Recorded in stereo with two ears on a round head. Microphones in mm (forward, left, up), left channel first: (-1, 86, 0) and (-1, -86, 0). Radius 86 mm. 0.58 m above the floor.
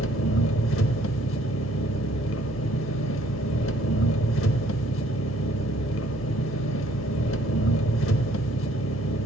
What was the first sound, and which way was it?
An engine running, 75° left (ahead or behind).